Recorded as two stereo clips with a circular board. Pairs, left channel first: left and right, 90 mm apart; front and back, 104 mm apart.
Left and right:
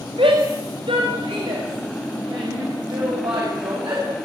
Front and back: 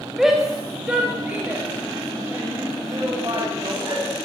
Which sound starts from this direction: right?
A shout, at 0.2 s.